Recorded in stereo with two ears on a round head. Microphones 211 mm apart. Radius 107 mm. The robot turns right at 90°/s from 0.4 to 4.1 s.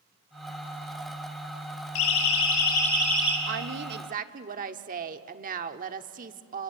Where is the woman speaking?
105° right, 1.1 m; by 6.7 s 45° right, 1.1 m.